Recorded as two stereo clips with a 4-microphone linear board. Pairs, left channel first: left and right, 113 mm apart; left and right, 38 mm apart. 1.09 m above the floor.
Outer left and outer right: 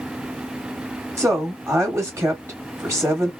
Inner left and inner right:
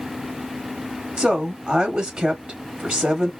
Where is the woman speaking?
25° right (ahead or behind), 1.5 m.